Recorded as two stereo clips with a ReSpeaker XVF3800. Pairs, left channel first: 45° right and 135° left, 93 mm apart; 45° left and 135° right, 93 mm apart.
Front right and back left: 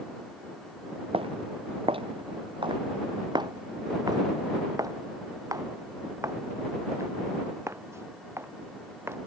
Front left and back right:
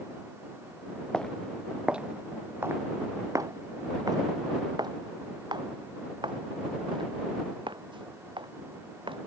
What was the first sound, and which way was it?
Footsteps, 125° left.